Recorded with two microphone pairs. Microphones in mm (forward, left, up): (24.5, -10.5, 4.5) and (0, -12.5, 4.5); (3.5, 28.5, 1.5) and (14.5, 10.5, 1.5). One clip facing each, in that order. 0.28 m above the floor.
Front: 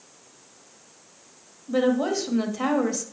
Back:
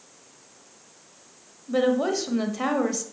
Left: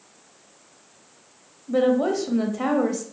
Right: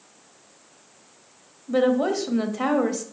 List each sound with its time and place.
1.7 s a woman speaking: 95° right, 1.0 m